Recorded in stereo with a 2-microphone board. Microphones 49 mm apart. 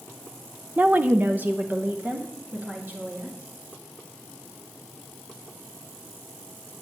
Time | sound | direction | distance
0.8 | a woman speaking | 35° right (ahead or behind) | 0.6 m